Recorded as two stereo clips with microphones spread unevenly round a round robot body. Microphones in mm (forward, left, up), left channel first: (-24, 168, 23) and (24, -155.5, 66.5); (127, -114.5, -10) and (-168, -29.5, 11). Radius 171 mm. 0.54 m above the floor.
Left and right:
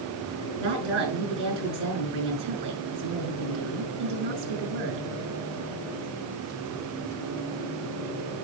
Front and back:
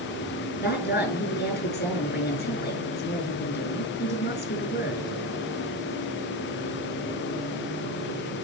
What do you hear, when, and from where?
0.6 s a woman speaking: 75° right, 6.5 m